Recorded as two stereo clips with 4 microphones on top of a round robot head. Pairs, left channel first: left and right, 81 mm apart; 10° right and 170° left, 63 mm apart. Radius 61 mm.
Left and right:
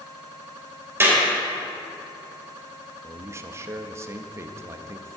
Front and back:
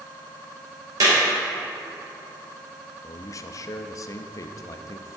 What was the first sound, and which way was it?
A clap, 150° right.